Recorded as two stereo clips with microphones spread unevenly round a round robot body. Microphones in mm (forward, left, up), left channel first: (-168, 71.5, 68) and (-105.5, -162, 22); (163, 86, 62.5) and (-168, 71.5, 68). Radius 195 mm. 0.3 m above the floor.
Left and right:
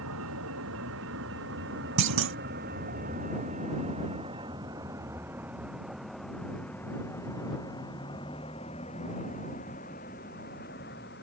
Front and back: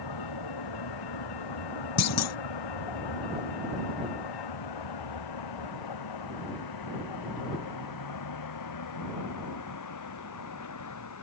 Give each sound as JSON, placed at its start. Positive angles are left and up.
{"t": 0.0, "sound": "a vehicle", "azimuth_deg": -30}
{"t": 2.0, "sound": "a clunk", "azimuth_deg": -50}